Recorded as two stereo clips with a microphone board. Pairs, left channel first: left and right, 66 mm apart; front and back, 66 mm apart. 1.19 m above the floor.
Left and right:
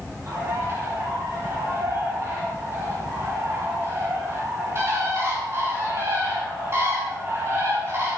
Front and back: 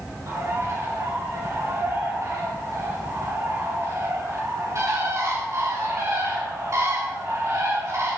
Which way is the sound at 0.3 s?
135° right.